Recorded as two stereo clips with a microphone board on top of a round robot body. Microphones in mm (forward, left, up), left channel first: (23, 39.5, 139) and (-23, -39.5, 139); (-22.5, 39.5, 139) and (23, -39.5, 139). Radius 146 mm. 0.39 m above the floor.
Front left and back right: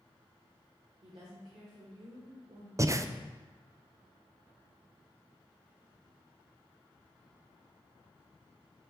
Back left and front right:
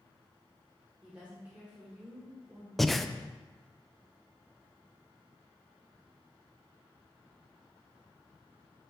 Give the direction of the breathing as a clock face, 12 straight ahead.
5 o'clock.